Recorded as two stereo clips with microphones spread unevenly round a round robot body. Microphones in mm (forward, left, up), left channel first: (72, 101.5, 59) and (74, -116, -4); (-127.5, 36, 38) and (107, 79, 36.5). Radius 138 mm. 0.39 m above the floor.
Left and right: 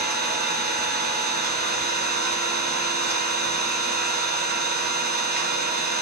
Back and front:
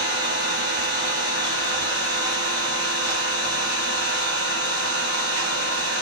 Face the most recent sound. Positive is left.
turn(degrees=-40)